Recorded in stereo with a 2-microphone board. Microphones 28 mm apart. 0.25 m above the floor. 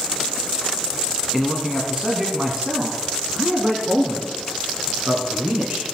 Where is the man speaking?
10° right (ahead or behind), 2.5 m; by 5.8 s 65° right (ahead or behind), 4 m.